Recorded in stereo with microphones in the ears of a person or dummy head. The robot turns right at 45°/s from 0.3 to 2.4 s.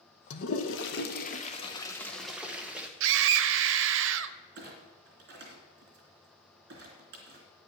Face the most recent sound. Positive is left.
turn(degrees=-55)  # may be behind; listen again after turning